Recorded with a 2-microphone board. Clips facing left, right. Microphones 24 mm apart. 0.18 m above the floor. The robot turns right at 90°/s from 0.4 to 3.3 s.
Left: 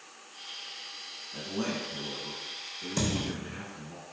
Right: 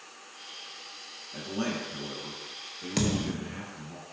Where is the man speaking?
165° left, 1.1 m; by 4.0 s 20° right, 1.1 m.